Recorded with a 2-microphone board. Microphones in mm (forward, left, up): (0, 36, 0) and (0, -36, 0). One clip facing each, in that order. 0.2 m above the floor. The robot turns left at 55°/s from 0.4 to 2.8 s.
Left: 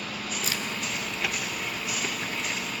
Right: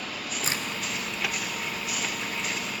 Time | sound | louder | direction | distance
0.4 | a crack | right 2 dB | 35° right (ahead or behind) | 3.5 m